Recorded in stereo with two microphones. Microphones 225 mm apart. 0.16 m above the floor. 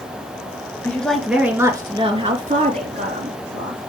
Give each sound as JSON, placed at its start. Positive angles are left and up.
{"t": 0.8, "sound": "a woman speaking", "side_deg": 10, "distance_m": 2.5}